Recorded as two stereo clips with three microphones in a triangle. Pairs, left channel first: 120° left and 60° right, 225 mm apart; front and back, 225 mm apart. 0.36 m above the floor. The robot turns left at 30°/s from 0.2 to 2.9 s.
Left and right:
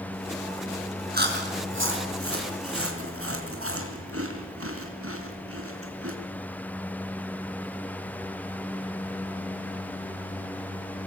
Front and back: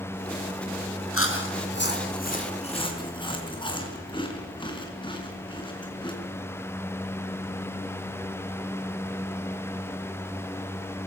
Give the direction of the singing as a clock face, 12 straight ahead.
No singing in this recording.